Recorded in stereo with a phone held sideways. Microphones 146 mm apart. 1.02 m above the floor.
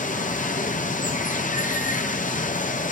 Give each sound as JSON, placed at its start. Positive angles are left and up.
{"t": 0.0, "sound": "running water", "side_deg": 60, "distance_m": 0.7}